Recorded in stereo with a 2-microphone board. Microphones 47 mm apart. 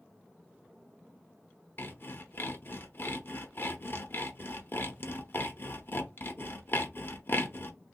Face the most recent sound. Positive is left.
turn(degrees=50)  # may be behind; listen again after turning